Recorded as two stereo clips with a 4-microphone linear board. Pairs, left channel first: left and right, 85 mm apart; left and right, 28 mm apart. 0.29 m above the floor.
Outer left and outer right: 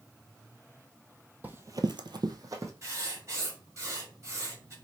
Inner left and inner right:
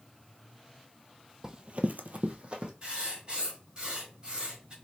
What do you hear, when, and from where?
1.4 s running footsteps: 20° right (ahead or behind), 0.7 m; by 2.7 s 35° right (ahead or behind), 1.1 m
2.8 s writing: 35° right (ahead or behind), 1.6 m